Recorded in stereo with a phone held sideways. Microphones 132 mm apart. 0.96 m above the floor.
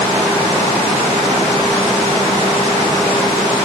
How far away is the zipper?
I don't hear a zipper.